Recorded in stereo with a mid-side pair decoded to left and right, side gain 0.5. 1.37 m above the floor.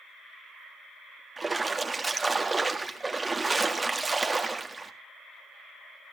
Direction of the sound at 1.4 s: 20° right.